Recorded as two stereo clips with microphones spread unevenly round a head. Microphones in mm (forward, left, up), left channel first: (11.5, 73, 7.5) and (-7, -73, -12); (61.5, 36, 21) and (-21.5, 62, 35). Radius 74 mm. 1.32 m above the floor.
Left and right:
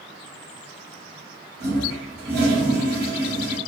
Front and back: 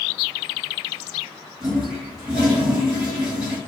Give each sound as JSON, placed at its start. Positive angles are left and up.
{"t": 1.6, "sound": "a toilet flushing", "azimuth_deg": -105, "distance_m": 1.5}